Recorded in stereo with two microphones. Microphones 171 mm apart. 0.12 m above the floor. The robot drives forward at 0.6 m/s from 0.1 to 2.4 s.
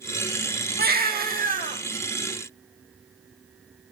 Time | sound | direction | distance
0.8 | a baby crying | 70° right (ahead or behind) | 1.5 m